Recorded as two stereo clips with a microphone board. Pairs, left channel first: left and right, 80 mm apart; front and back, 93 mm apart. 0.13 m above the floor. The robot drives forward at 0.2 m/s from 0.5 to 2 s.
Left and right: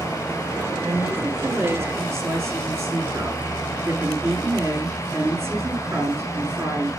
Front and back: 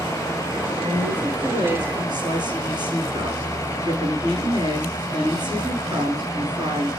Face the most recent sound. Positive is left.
turn(degrees=-145)